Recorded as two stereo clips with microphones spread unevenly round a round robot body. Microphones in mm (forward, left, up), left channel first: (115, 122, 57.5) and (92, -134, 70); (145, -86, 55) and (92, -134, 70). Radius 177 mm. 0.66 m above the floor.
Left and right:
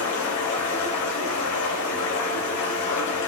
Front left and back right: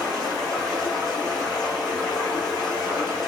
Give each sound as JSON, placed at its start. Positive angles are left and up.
{"t": 0.0, "sound": "running water", "azimuth_deg": 100, "distance_m": 1.5}